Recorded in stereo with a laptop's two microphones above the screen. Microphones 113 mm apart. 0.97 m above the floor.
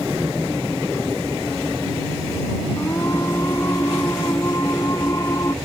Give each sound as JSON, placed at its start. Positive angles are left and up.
{"t": 2.8, "sound": "singing", "side_deg": 25}